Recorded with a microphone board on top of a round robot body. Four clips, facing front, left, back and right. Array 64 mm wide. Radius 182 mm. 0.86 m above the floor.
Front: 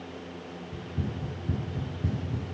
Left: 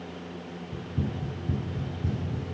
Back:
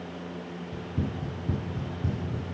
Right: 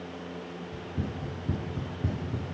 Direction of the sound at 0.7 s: 165° left.